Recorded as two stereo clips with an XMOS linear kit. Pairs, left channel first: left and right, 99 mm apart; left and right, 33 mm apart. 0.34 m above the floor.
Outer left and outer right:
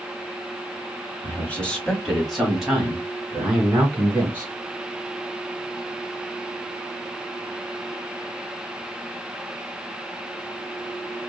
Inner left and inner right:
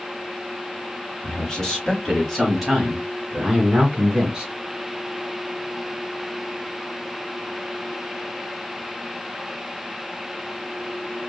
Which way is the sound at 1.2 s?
20° left (ahead or behind).